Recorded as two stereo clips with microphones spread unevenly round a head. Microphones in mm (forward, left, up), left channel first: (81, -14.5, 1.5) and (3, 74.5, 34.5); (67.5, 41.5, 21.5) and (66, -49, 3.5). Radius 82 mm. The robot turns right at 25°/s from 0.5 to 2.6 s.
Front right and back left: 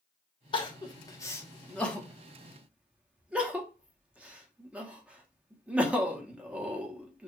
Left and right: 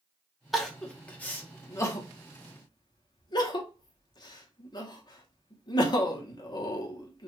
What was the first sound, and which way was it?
Crying, straight ahead.